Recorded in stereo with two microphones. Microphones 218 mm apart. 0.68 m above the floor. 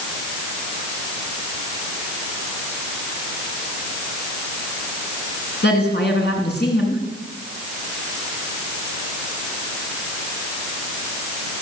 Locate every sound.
5.6 s a woman speaking: 45° left (ahead or behind), 8 m